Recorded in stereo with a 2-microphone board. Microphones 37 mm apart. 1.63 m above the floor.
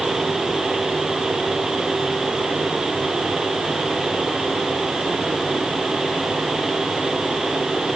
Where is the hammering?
I don't hear hammering.